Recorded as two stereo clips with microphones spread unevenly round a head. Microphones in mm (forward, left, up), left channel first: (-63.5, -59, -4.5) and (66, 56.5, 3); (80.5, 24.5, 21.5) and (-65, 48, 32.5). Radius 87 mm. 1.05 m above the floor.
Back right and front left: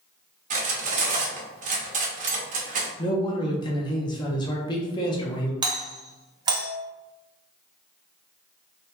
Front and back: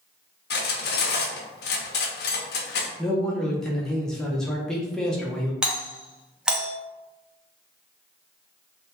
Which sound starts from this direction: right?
A man speaking, at 3.0 s.